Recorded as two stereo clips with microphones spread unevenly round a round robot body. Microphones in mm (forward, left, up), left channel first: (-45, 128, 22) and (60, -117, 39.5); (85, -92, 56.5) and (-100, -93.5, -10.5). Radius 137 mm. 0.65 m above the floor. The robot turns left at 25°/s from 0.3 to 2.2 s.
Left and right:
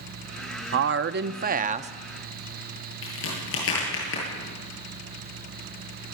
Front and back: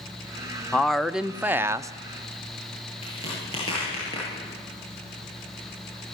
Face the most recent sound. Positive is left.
turn(degrees=70)